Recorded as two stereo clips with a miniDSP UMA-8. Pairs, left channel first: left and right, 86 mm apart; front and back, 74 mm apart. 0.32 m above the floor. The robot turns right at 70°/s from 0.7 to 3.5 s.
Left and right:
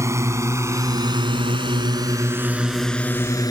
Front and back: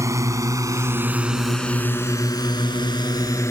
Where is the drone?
140° right; by 3.5 s 50° left.